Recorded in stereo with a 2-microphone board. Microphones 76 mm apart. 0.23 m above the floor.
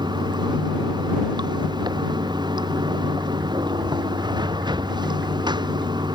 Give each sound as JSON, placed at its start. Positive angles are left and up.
{"t": 0.0, "sound": "running water", "side_deg": -75}